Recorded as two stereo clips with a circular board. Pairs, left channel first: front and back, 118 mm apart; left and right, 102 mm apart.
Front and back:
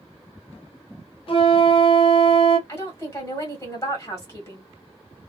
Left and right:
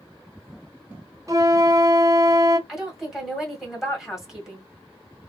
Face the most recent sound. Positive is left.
turn(degrees=-5)